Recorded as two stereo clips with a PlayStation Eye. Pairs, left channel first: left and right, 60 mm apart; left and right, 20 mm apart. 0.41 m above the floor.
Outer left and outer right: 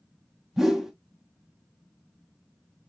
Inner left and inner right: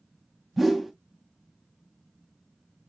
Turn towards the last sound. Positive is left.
turn(degrees=-5)  # may be behind; listen again after turning